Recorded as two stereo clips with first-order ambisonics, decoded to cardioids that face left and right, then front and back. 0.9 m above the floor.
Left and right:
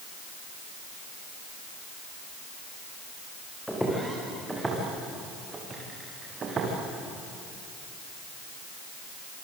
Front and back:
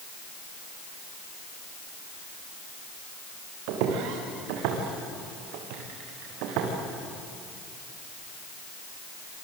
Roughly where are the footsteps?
Behind.